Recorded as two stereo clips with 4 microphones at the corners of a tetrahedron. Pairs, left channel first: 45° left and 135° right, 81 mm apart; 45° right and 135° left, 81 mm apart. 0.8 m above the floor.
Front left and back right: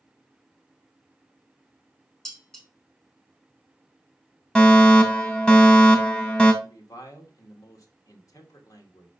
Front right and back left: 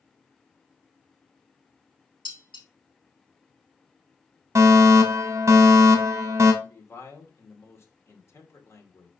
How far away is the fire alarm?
About 1.9 m.